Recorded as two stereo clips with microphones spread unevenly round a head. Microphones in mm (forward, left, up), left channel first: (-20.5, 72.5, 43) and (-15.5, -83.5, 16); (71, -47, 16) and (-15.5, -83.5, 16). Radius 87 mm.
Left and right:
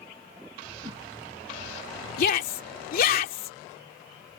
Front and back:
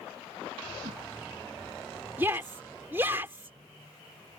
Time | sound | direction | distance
0.8 | a whoosh | 150° right | ?
2.2 | a shout | 125° left | ?